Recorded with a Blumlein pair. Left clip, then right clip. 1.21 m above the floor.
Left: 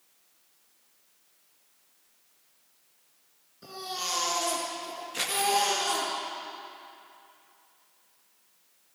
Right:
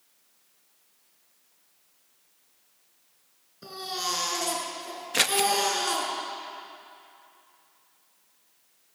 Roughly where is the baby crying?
Ahead.